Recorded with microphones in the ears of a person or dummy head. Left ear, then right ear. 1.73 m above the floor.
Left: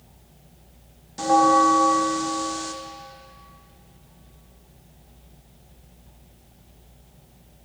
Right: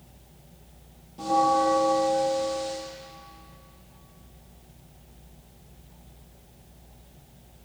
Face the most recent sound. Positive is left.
turn(degrees=50)  # may be behind; listen again after turning